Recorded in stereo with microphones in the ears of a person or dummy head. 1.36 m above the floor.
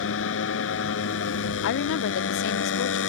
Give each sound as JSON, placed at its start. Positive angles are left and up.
{"t": 0.0, "sound": "a motorcycle", "side_deg": 80}
{"t": 1.6, "sound": "a woman speaking", "side_deg": 70}